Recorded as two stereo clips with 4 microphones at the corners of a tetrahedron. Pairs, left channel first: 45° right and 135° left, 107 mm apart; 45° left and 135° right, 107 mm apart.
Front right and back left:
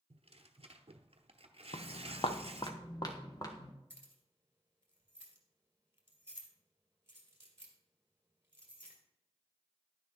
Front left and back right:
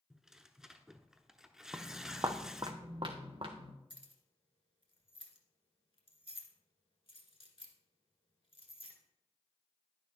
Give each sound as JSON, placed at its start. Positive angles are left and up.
{"t": 0.1, "sound": "tearing paper", "azimuth_deg": 140, "distance_m": 0.8}
{"t": 1.7, "sound": "footsteps", "azimuth_deg": -60, "distance_m": 0.8}
{"t": 3.9, "sound": "keys jangling", "azimuth_deg": 70, "distance_m": 1.8}